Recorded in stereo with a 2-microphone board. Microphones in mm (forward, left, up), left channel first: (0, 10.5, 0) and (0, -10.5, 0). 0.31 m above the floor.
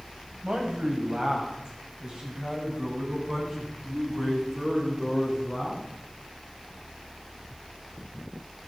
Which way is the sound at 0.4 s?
45° right (ahead or behind).